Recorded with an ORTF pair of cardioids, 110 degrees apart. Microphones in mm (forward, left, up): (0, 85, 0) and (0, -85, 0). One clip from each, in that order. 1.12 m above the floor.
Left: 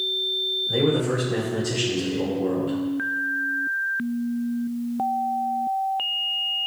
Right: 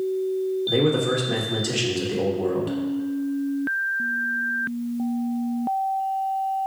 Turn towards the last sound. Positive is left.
turn(degrees=-65)